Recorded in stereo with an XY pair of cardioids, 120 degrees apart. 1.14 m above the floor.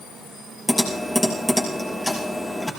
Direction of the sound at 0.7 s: 15° left.